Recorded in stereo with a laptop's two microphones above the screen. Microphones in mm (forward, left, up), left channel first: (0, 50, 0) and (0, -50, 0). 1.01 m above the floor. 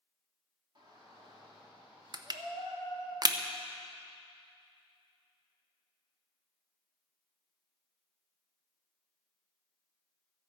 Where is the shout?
50° right (ahead or behind), 2.5 m; by 3.1 s 60° right (ahead or behind), 6 m.